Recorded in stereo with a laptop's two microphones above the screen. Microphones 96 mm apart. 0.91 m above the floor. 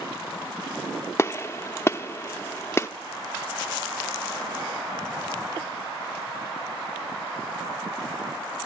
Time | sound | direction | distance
1.2 | a gunshot | 25° left (ahead or behind) | 0.6 m